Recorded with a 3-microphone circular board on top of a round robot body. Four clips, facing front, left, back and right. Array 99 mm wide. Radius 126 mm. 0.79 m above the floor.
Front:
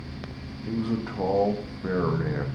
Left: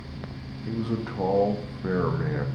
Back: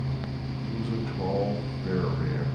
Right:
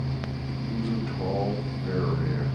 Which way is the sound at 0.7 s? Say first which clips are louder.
Left 1 dB, front 5 dB; 45° left.